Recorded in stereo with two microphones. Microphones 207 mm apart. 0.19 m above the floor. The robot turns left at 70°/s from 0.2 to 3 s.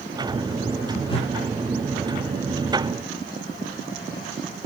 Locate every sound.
1.1 s a whoosh: 25° left (ahead or behind), 0.9 m; by 1.3 s 35° left (ahead or behind), 0.9 m